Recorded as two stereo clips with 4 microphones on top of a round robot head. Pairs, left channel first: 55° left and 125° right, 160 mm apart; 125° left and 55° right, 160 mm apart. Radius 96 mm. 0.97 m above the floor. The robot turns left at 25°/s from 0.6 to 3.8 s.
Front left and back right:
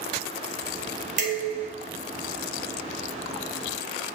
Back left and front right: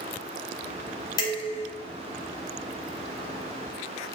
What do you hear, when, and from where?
1.2 s dishes clattering: 170° right, 1.5 m; by 1.7 s straight behind, 1.5 m